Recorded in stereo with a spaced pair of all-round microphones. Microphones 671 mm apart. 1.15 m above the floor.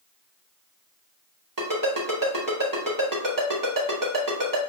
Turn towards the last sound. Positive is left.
turn(degrees=-30)  # may be behind; listen again after turning